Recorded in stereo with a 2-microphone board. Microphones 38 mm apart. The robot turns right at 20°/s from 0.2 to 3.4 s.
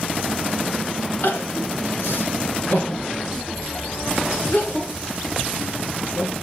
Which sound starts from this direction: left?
Crying, at 1.2 s.